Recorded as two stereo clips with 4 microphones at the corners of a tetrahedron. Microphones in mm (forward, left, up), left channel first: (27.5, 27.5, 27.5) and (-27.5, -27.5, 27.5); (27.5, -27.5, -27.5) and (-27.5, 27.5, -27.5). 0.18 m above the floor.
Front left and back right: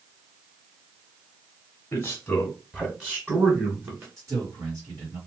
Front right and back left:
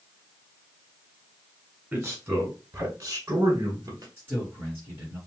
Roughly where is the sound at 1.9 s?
Left.